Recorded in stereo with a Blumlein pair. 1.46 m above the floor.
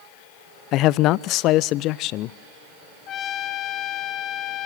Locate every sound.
0.7 s a man speaking: 35° left, 0.6 m
3.1 s a trumpet: 30° left, 0.9 m